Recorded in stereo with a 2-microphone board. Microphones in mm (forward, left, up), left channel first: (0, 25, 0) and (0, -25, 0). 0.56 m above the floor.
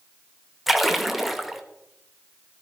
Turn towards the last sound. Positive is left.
turn(degrees=0)  # may be behind; listen again after turning